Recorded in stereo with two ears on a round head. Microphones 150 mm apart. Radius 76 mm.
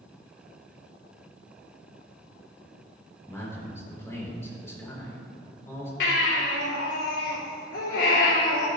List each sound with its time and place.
3.3 s a man speaking: 15° left (ahead or behind), 4 m
6.0 s a baby crying: 80° left, 4 m